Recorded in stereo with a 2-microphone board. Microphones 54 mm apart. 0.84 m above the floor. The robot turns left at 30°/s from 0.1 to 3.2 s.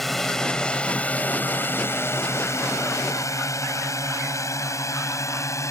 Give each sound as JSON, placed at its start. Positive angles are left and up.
{"t": 0.0, "sound": "a drone", "side_deg": 0}